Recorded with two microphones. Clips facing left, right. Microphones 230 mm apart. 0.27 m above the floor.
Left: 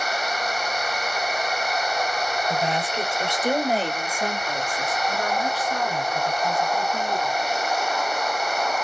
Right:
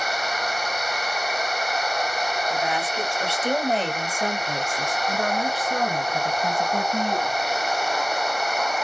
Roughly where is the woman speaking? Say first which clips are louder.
Left 1 dB; left.